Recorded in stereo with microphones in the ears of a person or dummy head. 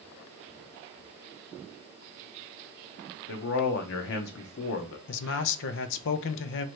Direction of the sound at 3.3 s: 65° left (ahead or behind).